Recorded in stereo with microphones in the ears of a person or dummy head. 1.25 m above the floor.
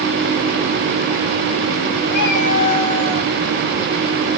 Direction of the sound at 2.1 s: 55° left (ahead or behind).